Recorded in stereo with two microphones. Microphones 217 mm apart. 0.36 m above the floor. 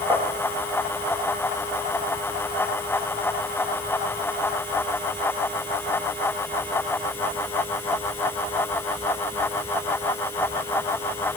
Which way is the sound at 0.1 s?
20° right (ahead or behind).